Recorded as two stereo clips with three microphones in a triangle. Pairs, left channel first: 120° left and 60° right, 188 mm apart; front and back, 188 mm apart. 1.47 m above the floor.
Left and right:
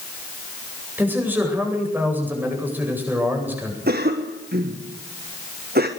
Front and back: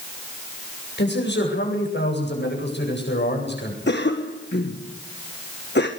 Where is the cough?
25° right, 1.5 m.